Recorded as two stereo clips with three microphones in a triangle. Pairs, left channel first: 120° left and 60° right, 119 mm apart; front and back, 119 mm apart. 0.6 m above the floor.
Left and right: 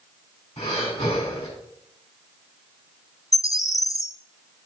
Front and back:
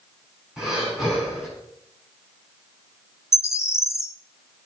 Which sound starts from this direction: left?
Breathing, at 0.6 s.